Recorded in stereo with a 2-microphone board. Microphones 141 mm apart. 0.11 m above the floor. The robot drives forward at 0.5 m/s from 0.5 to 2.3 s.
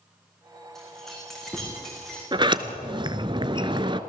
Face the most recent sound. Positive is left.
turn(degrees=-35)  # may be behind; listen again after turning